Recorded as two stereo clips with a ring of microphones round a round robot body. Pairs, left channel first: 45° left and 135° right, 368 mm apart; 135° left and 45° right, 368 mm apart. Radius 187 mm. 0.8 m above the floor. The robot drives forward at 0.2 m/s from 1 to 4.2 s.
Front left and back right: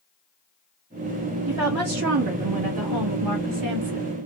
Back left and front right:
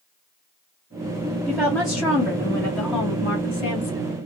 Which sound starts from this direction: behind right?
A woman speaking, at 1.5 s.